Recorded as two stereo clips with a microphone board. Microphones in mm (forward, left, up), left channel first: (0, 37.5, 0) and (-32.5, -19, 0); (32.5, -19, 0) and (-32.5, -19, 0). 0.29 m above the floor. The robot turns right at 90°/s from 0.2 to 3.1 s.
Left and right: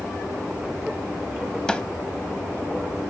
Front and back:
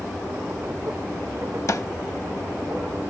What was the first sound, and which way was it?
A snare drum, 20° right.